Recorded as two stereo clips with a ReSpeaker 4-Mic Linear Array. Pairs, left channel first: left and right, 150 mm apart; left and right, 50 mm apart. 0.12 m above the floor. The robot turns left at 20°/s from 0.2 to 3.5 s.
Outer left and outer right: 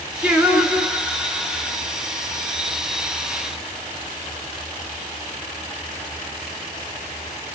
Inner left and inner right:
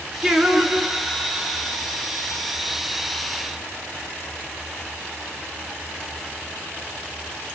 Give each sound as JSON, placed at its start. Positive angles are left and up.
{"t": 0.2, "sound": "singing", "azimuth_deg": -160, "distance_m": 1.0}